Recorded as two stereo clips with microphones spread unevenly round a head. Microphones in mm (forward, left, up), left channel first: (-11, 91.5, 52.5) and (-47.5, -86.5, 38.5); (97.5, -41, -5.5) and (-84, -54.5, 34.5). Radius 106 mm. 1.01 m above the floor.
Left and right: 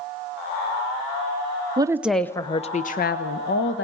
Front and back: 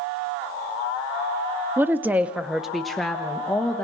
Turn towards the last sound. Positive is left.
turn(degrees=80)